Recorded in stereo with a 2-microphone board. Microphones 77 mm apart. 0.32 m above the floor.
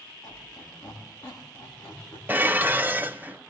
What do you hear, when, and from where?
0.2 s a squeak: 40° left (ahead or behind), 9.5 m
2.3 s dishes clattering: 25° right (ahead or behind), 0.7 m